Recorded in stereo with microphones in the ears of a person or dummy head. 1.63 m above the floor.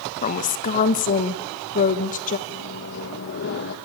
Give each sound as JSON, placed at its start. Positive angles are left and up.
{"t": 0.2, "sound": "a woman speaking", "side_deg": 40, "distance_m": 1.4}
{"t": 2.5, "sound": "a microwave", "side_deg": 60, "distance_m": 1.9}